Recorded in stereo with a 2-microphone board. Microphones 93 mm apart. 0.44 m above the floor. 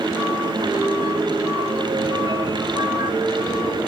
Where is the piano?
55° right (ahead or behind), 1.5 m.